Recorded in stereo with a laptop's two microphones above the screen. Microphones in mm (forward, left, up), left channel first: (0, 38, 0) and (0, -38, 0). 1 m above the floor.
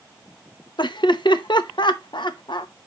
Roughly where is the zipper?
I don't hear a zipper.